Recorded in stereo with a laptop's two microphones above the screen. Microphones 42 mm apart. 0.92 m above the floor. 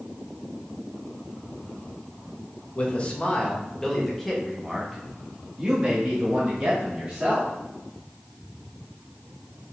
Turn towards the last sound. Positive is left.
turn(degrees=-25)  # may be behind; listen again after turning